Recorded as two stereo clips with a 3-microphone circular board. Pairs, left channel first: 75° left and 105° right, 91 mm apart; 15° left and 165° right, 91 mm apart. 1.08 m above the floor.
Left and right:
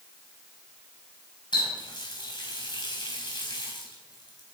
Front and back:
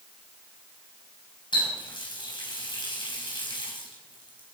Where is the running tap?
45° left, 4.5 m.